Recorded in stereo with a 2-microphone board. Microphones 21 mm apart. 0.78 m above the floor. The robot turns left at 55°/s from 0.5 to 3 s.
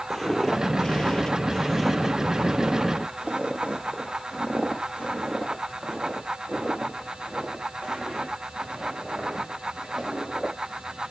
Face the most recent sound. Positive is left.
turn(degrees=-80)